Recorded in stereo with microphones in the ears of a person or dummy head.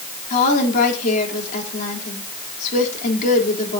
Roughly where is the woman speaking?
Left.